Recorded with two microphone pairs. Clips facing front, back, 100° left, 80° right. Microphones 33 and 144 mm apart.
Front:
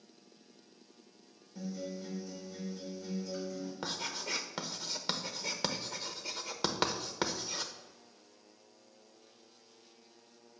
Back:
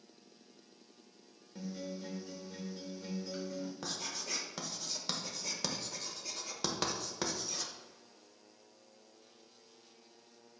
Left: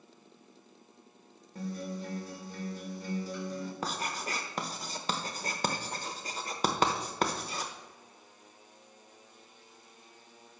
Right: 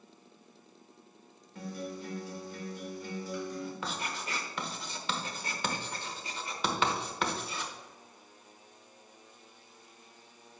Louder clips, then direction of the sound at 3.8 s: Front 3 dB, left 2 dB; 60° left.